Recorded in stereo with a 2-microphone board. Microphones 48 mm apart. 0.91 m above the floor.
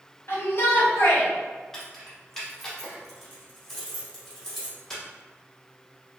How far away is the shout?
About 1.4 m.